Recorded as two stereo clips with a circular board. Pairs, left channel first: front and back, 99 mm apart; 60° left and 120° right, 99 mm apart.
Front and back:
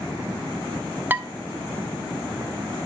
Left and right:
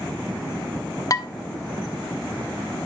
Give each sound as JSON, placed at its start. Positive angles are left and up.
{"t": 1.1, "sound": "dishes clattering", "azimuth_deg": 110, "distance_m": 0.5}